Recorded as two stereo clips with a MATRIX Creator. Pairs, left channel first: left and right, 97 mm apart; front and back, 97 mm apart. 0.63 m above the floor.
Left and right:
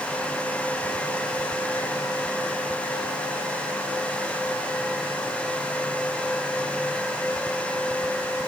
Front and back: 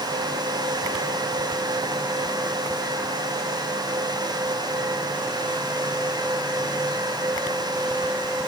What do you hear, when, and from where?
Only background noise.